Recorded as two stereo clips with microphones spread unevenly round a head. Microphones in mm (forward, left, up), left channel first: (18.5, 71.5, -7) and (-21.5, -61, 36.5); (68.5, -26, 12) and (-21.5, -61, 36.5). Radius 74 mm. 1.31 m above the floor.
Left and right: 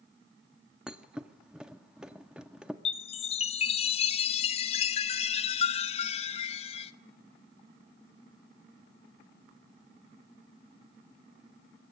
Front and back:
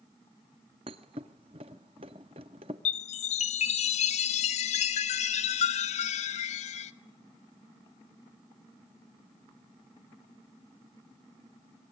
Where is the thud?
Straight behind, 1.2 m.